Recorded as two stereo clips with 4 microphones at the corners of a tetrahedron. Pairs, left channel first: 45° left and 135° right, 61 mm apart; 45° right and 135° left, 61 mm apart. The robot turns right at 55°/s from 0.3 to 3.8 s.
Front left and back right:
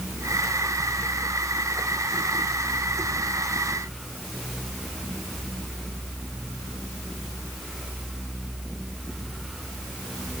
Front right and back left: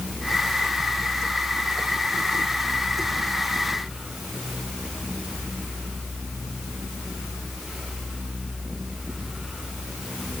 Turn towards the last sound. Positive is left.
No sound to turn to.